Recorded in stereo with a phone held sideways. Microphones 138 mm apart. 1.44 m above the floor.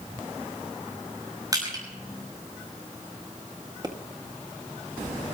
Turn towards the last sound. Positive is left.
turn(degrees=-30)  # may be behind; listen again after turning